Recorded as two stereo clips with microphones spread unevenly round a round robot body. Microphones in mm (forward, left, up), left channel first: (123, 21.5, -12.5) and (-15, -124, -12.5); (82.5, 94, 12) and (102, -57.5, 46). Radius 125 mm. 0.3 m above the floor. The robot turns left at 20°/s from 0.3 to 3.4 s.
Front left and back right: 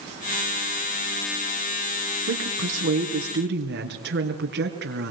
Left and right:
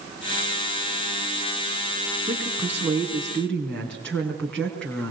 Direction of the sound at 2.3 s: 160° right.